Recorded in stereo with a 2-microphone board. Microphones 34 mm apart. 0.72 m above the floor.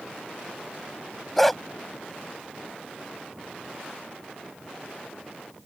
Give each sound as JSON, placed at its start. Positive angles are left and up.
{"t": 1.4, "sound": "a dog barking", "side_deg": 10}